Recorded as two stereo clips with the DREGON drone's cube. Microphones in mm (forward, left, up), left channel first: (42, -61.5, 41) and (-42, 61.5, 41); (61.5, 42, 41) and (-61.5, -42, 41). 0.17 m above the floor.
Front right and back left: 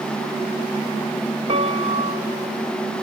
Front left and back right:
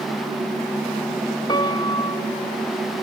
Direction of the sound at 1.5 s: 90° left.